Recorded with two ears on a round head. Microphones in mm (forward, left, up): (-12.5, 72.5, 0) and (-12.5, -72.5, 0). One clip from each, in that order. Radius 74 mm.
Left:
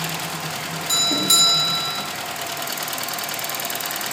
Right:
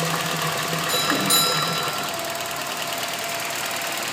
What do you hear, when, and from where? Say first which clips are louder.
0.9 s a doorbell: left 4 dB; 25° left (ahead or behind), 2 m